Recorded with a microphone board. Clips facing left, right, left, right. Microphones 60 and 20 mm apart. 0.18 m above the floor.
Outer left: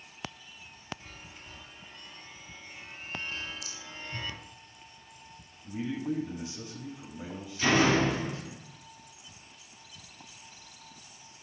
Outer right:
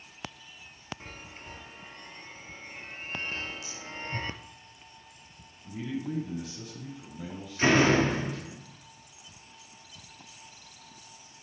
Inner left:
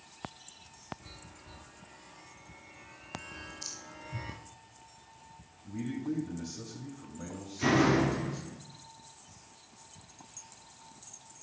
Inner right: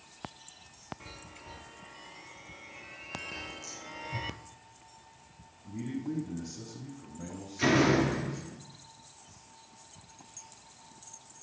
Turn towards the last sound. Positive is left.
turn(degrees=-30)  # may be behind; listen again after turning